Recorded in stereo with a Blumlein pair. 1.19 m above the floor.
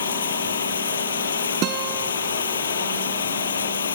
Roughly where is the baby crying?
I don't hear a baby crying.